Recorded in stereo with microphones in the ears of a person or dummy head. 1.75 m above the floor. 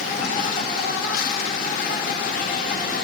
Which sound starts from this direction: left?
An insect, at 0.0 s.